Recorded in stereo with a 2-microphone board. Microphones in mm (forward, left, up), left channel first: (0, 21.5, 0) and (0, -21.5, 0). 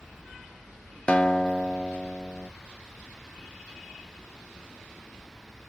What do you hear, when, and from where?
1.1 s a guitar: 25° left (ahead or behind), 0.6 m